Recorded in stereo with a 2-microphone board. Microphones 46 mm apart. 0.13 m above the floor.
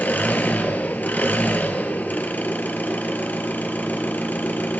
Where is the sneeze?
I don't hear a sneeze.